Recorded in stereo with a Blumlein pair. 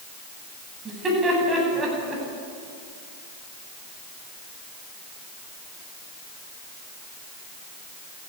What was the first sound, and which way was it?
Laughter, 15° right.